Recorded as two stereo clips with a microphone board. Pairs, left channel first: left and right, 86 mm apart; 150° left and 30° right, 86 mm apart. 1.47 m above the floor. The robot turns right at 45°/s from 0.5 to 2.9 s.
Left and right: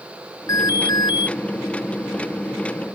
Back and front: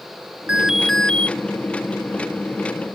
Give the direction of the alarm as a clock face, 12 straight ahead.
10 o'clock.